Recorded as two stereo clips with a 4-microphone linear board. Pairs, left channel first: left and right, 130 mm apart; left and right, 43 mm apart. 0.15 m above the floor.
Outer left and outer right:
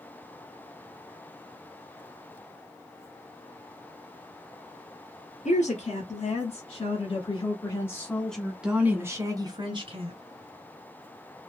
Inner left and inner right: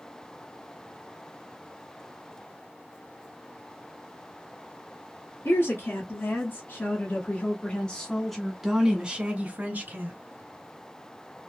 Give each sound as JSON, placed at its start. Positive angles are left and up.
{"t": 5.5, "sound": "a woman speaking", "side_deg": 60, "distance_m": 2.0}